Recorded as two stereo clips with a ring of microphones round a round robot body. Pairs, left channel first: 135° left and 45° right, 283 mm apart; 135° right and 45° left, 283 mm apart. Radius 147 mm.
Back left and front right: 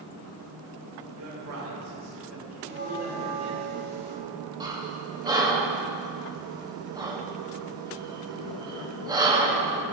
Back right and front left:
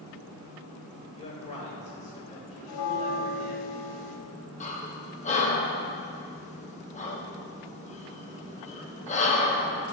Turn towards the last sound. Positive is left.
turn(degrees=-105)